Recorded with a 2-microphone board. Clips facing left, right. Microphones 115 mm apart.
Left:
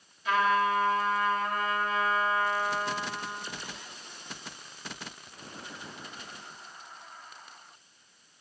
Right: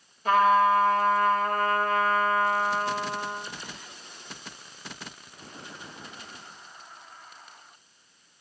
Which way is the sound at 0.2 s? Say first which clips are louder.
Right 6 dB; 40° right (ahead or behind).